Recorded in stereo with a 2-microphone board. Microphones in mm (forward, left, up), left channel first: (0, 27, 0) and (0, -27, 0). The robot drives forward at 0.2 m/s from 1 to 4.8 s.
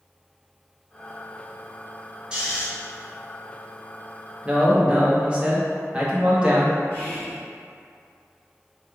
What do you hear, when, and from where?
2.3 s snoring: 15° right (ahead or behind), 0.7 m
4.5 s a man speaking: 20° right (ahead or behind), 0.7 m
6.9 s whispering: 35° left (ahead or behind), 1.3 m